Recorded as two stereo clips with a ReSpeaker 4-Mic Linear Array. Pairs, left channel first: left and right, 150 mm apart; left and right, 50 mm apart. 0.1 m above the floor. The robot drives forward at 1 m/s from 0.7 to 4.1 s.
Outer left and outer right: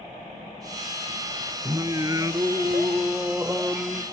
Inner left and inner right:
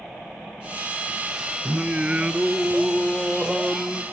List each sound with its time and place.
1.6 s singing: 25° right (ahead or behind), 1.0 m; by 4.0 s 10° right (ahead or behind), 2.5 m